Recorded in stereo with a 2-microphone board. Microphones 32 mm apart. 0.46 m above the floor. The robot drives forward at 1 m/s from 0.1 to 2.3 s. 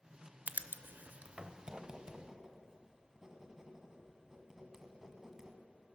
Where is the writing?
55° right (ahead or behind), 0.6 m; by 5.6 s 20° right (ahead or behind), 1.6 m.